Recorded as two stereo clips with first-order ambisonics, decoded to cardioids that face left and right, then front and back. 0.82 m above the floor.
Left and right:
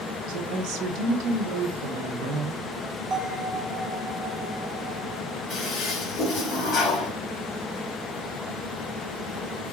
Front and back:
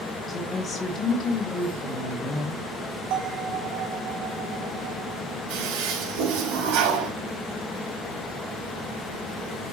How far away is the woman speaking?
About 2.0 m.